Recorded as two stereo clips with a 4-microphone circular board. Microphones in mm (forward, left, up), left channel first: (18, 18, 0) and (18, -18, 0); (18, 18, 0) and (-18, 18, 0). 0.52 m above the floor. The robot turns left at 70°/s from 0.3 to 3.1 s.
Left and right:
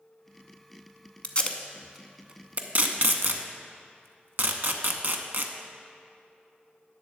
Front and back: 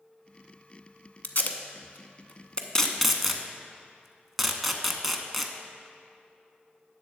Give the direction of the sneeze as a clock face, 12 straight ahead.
No sneeze in this recording.